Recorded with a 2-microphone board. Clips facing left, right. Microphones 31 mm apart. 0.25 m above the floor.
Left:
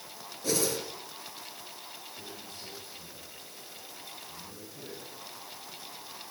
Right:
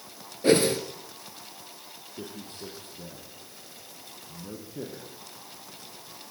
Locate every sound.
0.4 s a whoosh: 45° right (ahead or behind), 2.5 m
2.1 s a man speaking: 60° right (ahead or behind), 5.5 m